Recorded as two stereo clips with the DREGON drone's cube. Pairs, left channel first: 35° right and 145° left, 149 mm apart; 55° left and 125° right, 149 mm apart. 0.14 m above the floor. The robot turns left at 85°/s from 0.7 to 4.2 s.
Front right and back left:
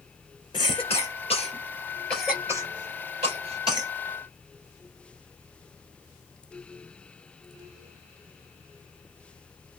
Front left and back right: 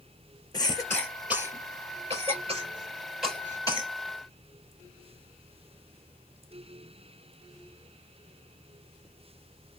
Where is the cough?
5° left, 2 m; by 3.9 s 90° left, 2 m.